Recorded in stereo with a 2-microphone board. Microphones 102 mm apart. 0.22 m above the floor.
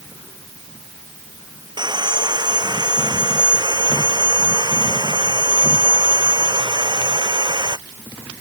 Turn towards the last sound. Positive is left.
turn(degrees=-45)  # may be behind; listen again after turning